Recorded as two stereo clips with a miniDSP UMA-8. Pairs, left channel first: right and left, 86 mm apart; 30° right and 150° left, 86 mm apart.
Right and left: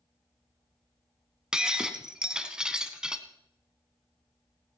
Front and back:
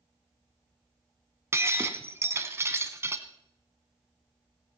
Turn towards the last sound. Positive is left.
turn(degrees=165)